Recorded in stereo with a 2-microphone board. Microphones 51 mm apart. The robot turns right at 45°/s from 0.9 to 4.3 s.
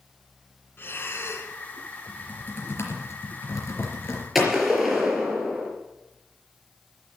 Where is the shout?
I don't hear a shout.